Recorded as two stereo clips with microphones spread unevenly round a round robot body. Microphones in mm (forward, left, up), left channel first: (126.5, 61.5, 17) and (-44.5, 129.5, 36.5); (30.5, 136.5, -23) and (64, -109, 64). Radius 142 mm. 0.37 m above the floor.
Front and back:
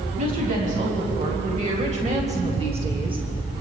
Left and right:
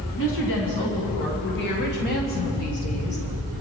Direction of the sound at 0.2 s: 115° left.